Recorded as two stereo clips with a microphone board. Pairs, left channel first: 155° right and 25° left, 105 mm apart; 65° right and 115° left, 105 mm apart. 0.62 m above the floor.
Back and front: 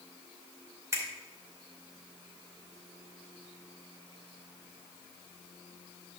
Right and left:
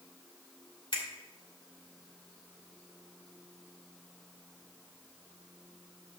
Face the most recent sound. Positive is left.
turn(degrees=-35)